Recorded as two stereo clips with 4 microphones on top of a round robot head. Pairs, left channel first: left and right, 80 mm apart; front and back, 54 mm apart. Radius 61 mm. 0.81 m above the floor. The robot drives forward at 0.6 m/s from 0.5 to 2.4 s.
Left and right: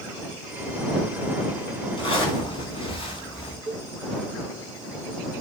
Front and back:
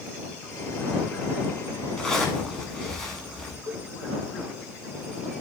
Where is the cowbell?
175° left, 2 m.